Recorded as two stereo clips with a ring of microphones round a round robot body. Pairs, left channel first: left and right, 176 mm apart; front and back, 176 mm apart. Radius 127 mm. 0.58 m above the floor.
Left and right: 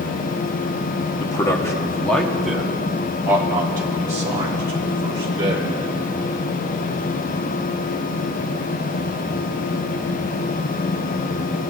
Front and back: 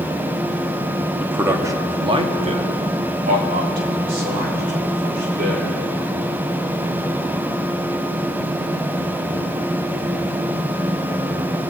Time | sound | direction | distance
1.2 | a man speaking | 110° left | 1.1 m